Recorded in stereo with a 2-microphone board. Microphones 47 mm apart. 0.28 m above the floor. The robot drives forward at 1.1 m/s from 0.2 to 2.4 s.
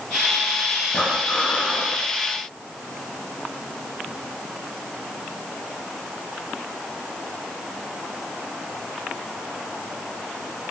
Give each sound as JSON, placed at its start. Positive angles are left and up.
{"t": 0.9, "sound": "breathing", "side_deg": 25, "distance_m": 9.5}